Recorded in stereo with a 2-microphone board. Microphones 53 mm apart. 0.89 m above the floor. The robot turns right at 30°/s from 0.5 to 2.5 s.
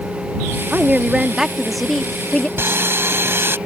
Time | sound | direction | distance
0.7 | a woman speaking | 30° right | ?
2.6 | sawing | 50° right (ahead or behind) | ?